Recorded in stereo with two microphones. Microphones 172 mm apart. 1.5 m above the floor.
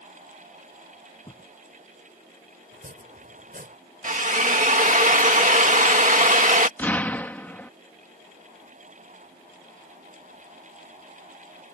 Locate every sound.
1.2 s a thud: 30° left (ahead or behind)
2.7 s chopping: 60° right (ahead or behind)
4.0 s a drill: 50° right (ahead or behind)
6.8 s an explosion: 10° left (ahead or behind)